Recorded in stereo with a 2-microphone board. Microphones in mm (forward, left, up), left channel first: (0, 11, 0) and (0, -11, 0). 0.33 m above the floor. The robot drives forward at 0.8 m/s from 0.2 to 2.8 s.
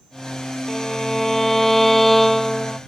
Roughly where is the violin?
Centre.